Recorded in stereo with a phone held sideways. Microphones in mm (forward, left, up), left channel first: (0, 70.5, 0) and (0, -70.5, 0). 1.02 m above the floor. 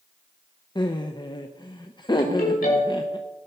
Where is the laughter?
30° left (ahead or behind), 0.7 m.